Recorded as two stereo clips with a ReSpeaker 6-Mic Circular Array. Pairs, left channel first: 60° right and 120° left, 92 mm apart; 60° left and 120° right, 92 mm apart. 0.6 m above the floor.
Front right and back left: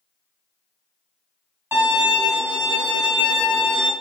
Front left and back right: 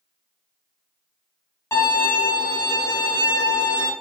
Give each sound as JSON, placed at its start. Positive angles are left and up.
{"t": 1.7, "sound": "a violin", "azimuth_deg": 85, "distance_m": 1.5}